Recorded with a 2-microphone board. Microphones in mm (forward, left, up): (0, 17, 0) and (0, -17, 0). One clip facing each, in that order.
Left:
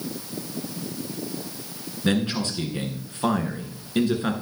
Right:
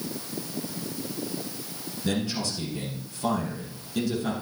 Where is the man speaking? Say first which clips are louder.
Left 5 dB; 45° left (ahead or behind), 1.9 m.